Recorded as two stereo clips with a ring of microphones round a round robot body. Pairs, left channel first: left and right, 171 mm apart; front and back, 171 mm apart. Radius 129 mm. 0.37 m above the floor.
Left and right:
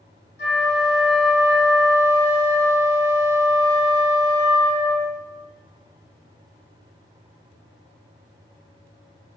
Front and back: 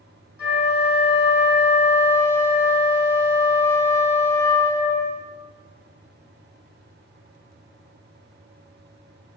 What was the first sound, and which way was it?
A flute, 95° left.